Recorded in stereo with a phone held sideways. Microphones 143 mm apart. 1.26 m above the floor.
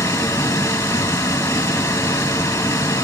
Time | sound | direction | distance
0.0 | a machine running | 20° left (ahead or behind) | 2.5 m